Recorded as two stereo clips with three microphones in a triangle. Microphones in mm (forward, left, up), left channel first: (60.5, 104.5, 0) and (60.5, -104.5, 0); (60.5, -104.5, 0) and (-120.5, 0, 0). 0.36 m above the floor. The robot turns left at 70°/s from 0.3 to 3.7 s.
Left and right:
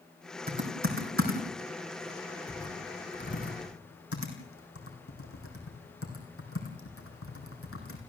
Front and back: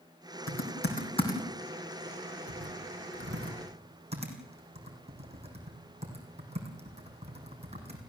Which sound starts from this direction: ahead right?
Typing on a keyboard, at 0.5 s.